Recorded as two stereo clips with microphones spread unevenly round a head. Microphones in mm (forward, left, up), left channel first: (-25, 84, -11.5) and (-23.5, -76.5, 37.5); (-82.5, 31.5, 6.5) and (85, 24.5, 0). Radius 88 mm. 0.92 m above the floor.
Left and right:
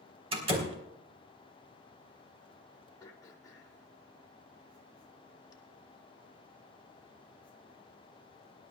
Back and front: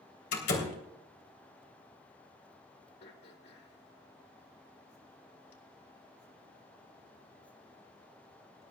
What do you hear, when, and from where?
0.3 s a door slam: 145° right, 3 m
3.0 s throat clearing: 155° left, 2.5 m